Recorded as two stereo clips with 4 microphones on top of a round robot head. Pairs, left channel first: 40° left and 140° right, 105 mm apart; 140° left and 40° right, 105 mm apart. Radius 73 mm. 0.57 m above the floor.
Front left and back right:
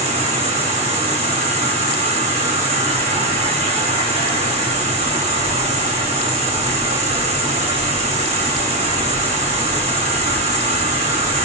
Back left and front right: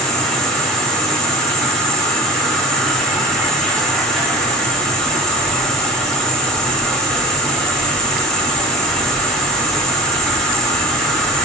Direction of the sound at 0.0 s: 130° right.